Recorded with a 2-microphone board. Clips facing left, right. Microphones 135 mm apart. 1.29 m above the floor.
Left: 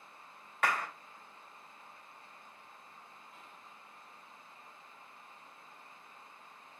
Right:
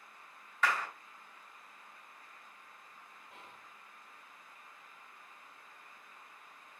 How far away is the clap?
About 1.5 m.